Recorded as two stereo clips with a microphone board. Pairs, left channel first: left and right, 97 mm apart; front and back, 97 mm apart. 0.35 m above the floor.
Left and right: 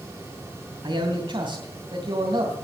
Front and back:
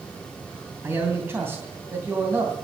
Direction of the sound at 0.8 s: 115° right.